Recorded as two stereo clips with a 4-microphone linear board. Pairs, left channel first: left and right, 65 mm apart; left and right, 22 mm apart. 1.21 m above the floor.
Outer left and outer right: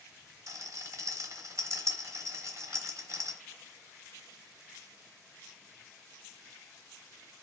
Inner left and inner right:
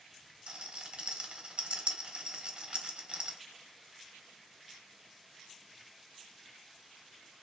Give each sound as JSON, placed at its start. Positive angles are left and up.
{"t": 0.5, "sound": "a rattle", "side_deg": -50, "distance_m": 1.2}